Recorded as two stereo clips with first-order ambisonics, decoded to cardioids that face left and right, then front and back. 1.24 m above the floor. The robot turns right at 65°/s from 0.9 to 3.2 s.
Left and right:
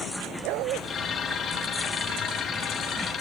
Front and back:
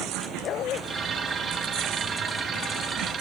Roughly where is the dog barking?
Ahead right.